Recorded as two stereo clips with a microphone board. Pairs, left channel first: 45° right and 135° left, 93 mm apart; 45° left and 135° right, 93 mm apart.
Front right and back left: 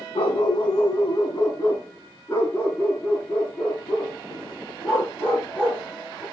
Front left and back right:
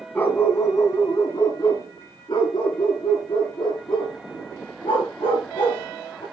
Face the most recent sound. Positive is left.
turn(degrees=40)